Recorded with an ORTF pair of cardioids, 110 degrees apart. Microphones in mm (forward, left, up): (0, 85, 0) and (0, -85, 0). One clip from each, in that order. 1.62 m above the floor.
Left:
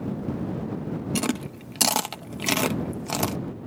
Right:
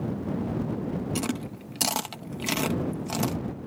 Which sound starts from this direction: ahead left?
Chewing, at 1.1 s.